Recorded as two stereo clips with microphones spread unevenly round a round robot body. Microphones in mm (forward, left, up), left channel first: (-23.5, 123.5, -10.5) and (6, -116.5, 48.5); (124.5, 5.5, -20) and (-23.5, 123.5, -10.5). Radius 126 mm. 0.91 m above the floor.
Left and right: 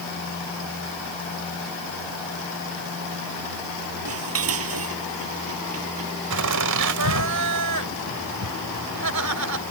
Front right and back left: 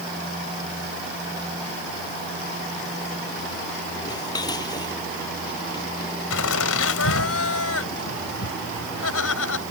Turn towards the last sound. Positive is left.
turn(degrees=-60)